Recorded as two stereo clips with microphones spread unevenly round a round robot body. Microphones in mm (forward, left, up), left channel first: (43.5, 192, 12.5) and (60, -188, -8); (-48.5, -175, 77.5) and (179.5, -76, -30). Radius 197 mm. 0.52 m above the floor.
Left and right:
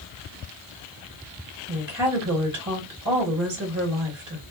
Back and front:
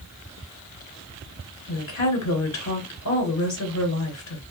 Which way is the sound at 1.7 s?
135° right.